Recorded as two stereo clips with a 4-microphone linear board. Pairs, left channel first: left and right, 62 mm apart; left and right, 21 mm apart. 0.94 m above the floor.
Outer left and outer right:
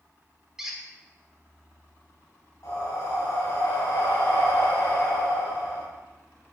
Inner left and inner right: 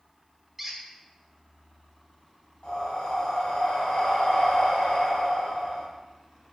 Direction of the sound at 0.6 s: 10° right (ahead or behind).